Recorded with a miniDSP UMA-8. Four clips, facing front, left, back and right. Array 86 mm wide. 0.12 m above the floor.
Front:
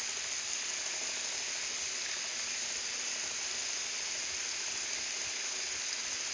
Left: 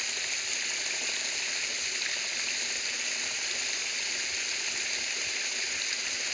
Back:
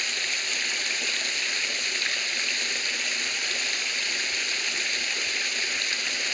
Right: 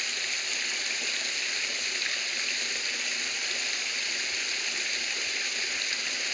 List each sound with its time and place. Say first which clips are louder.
0.0 s running water: right 2 dB, back 12 dB; 170° right, 0.9 m